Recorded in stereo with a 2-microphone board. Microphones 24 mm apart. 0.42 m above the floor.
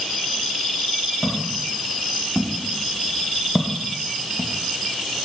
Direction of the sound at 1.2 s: 75° left (ahead or behind).